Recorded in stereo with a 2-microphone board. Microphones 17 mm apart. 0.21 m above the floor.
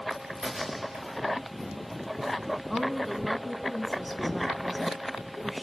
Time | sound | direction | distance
0.1 | a crack | 85° right | 5 m
2.7 | a woman speaking | centre (ahead or behind) | 1.9 m